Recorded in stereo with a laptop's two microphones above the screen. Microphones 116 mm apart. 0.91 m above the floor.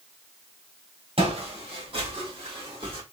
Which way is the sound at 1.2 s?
55° right (ahead or behind).